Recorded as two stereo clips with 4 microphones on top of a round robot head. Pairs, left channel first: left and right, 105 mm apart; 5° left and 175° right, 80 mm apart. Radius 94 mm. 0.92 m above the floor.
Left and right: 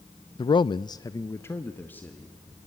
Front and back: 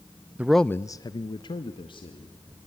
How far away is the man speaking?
About 0.5 m.